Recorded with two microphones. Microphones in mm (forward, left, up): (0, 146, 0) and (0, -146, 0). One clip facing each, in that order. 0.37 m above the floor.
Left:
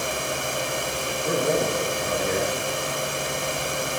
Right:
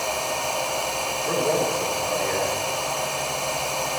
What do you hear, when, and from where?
1.2 s a man speaking: 45° left (ahead or behind), 7 m